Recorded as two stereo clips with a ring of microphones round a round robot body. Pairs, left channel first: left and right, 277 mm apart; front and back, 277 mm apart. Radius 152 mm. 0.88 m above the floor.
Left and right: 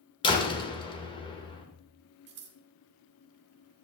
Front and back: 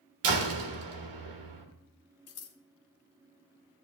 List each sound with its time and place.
0.2 s a door slam: 165° left, 2 m
2.3 s scissors: 35° right, 1.3 m